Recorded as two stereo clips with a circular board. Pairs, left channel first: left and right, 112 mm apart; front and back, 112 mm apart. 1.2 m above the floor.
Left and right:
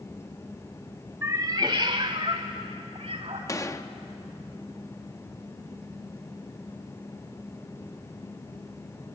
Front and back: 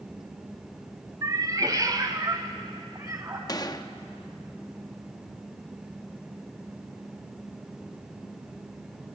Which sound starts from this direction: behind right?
A cat meowing, at 1.2 s.